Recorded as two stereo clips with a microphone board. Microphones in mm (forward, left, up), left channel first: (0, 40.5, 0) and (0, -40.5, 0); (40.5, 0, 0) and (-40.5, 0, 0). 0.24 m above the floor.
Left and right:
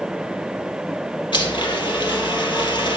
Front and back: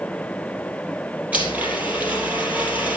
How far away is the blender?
About 3 m.